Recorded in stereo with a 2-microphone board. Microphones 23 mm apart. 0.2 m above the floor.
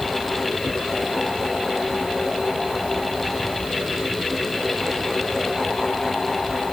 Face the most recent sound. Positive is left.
No sound to turn to.